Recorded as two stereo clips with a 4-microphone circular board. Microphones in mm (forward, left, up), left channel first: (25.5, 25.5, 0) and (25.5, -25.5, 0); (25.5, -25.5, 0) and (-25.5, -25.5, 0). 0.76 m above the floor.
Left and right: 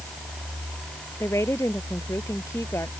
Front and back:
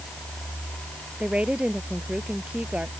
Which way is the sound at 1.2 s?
110° left.